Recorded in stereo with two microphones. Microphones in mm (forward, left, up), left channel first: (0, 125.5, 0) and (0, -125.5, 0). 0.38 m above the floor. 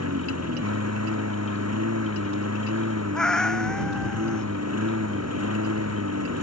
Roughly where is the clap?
No clap in this recording.